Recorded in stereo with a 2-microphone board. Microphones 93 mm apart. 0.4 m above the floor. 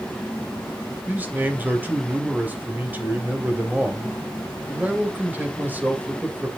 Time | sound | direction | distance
1.1 | a man speaking | 20° right (ahead or behind) | 2.5 m